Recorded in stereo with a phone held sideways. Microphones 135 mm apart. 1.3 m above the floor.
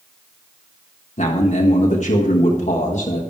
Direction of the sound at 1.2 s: 60° left (ahead or behind).